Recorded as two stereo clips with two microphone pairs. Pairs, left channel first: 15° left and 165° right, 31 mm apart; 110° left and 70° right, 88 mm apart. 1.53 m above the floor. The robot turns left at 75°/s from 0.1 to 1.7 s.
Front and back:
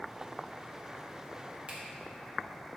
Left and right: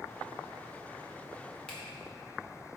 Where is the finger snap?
Straight behind, 0.7 m.